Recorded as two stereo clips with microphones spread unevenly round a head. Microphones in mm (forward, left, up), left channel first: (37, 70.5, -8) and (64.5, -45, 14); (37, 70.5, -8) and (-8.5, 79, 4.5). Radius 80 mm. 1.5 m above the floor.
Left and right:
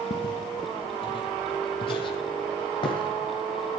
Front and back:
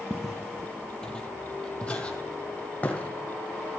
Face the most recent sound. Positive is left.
turn(degrees=55)